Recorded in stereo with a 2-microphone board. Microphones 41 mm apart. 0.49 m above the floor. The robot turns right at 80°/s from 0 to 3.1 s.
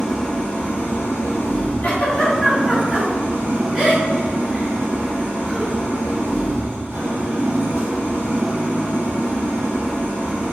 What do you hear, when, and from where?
0.0 s an engine running: straight ahead, 1.0 m; by 10.5 s 110° right, 1.0 m
1.8 s a giggle: 45° left (ahead or behind), 1.5 m; by 5.7 s 20° right (ahead or behind), 1.5 m